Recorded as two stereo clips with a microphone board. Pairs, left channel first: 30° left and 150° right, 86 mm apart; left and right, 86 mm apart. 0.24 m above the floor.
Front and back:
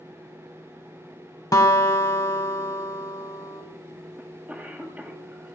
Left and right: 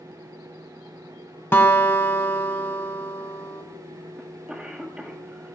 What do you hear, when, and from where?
1.5 s a guitar: 40° left, 1.1 m
4.2 s a cough: 140° right, 1.5 m